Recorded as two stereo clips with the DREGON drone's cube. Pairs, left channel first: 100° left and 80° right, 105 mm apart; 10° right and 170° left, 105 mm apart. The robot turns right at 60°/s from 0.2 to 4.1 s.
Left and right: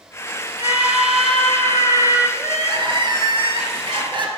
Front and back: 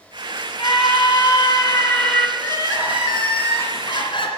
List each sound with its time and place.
0.6 s a scream: 25° right, 2 m; by 2.3 s 75° left, 2 m
2.4 s crying: 145° right, 2.5 m; by 4.3 s 45° right, 2.5 m